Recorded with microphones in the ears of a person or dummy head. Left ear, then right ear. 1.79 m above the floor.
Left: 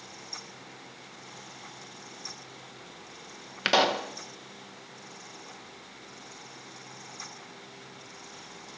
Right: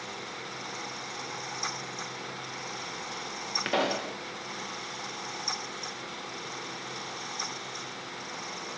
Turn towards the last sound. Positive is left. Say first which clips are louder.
# left 6 dB
turn(degrees=45)  # may be behind; listen again after turning